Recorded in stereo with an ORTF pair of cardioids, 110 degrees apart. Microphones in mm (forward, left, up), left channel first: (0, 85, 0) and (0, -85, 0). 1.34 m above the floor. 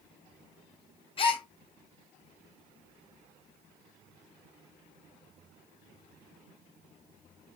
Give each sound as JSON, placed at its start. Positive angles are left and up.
{"t": 1.2, "sound": "a gasp", "azimuth_deg": 30, "distance_m": 0.6}